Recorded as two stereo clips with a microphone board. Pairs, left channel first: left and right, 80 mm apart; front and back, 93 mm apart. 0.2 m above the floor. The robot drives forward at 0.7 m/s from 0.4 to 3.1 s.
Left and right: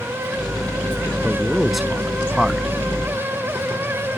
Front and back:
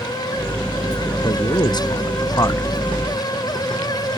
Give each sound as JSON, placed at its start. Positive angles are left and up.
{"t": 1.2, "sound": "a man speaking", "azimuth_deg": 0}